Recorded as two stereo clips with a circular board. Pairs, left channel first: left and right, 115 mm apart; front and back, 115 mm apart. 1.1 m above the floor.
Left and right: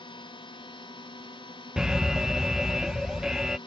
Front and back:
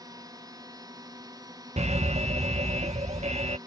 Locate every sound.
0.0 s a drone: 125° left
1.8 s an alarm: 175° right